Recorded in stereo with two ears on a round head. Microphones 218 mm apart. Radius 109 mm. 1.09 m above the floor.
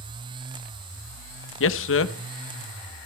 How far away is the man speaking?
About 1.1 m.